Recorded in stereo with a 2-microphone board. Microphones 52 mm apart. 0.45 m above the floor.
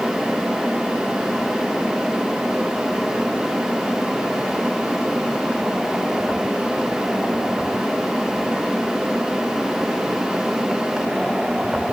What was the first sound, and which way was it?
Only background noise.